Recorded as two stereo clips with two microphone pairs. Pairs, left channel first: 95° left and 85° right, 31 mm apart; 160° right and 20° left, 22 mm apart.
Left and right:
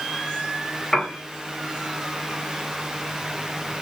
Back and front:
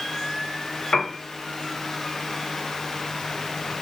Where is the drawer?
I don't hear a drawer.